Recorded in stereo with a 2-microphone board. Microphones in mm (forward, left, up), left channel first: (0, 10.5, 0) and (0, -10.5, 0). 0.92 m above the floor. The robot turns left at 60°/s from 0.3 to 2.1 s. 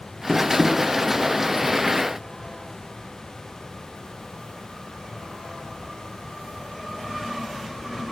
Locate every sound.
0.3 s tapping: 15° left (ahead or behind), 5 m; by 0.8 s 15° right (ahead or behind), 5 m